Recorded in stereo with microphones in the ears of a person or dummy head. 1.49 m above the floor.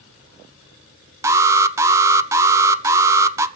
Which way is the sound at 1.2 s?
15° right (ahead or behind).